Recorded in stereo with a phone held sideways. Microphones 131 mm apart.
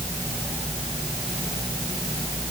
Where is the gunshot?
I don't hear a gunshot.